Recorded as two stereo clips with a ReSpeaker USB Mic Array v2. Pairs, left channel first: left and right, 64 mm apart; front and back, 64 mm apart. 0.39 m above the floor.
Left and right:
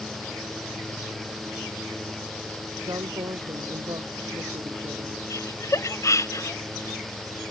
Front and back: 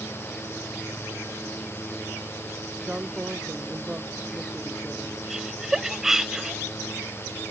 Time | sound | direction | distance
2.8 | a woman speaking | 105° right | ?
5.3 | laughter | 100° left | ?